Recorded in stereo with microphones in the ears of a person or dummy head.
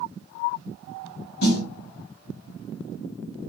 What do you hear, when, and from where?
1.4 s a snare drum: 60° left (ahead or behind), 1.4 m